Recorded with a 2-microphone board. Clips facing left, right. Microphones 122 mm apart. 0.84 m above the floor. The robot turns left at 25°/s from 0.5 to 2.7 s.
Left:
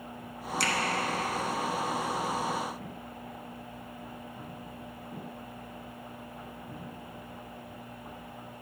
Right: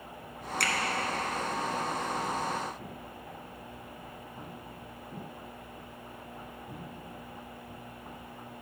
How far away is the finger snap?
About 1.0 m.